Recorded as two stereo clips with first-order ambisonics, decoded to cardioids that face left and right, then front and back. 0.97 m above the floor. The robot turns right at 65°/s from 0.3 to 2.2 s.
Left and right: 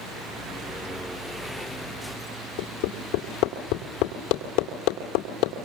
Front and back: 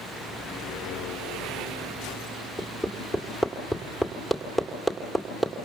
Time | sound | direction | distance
2.6 | hammering | 80° left | 2.5 m